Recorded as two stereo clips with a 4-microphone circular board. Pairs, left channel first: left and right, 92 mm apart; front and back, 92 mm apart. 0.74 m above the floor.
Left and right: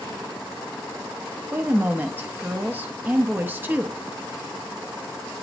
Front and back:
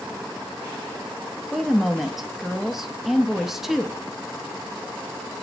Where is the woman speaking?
100° right, 0.6 m.